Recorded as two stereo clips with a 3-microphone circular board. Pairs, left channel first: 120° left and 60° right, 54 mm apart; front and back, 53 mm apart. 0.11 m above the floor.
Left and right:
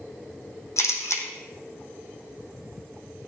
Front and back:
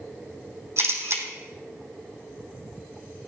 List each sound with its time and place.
0.8 s a camera shutter: 145° left, 2.5 m